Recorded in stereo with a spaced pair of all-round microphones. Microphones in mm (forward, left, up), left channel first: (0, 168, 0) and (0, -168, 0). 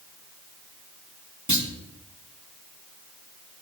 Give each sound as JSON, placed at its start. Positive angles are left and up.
{"t": 1.5, "sound": "a clunk", "side_deg": -55, "distance_m": 1.6}